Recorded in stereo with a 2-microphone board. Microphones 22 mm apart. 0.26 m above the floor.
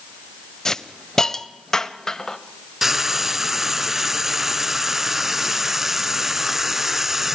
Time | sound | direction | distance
0.7 | a hiss | 20° left (ahead or behind) | 1.1 m
2.8 | frying | 15° right (ahead or behind) | 1.4 m